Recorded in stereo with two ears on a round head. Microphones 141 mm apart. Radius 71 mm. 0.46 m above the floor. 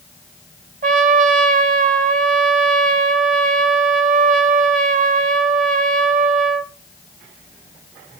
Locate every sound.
0.8 s a trumpet: 50° right (ahead or behind), 0.9 m